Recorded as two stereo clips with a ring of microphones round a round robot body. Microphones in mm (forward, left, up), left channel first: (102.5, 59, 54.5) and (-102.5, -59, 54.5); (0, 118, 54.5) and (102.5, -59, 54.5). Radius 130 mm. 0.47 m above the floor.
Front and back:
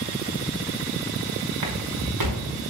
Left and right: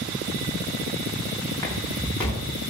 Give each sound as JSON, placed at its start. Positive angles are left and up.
{"t": 1.6, "sound": "footsteps", "azimuth_deg": -160, "distance_m": 3.0}